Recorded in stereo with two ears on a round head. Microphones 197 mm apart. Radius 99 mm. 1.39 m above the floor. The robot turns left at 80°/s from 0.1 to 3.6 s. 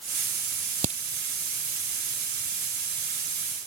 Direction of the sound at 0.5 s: 60° right (ahead or behind).